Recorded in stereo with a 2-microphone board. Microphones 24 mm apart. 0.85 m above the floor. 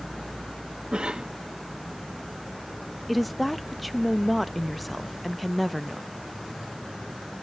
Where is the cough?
40° right (ahead or behind), 1.1 m.